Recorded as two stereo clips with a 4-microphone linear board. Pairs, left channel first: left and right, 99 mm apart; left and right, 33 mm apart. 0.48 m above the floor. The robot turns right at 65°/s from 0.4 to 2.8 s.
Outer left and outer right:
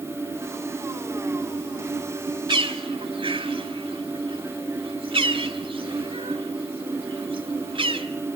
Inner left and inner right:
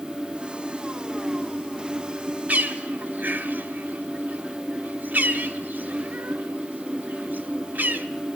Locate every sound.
2.5 s a bird: 50° right (ahead or behind), 1.5 m; by 8.1 s 60° right (ahead or behind), 1.5 m